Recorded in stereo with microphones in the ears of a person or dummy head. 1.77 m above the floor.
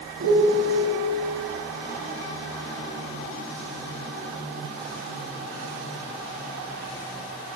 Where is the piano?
70° right (ahead or behind), 3 m.